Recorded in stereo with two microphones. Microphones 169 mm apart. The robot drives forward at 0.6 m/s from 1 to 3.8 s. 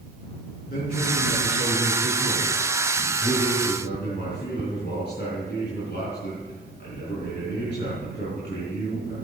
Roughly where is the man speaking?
Left.